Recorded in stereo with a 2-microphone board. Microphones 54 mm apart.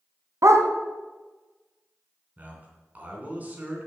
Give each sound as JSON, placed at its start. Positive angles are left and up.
{"t": 0.4, "sound": "a dog barking", "side_deg": -70, "distance_m": 1.0}
{"t": 2.4, "sound": "a man speaking", "side_deg": -30, "distance_m": 2.5}